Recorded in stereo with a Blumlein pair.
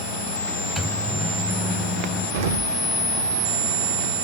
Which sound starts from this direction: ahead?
A microwave, at 0.8 s.